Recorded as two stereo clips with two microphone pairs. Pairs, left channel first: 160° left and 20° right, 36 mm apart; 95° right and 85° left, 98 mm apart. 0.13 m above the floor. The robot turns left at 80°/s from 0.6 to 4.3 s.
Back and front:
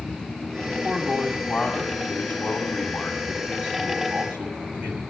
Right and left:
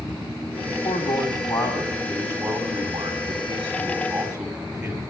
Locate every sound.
0.7 s a man speaking: 65° right, 6.5 m; by 5.0 s 5° left, 6.5 m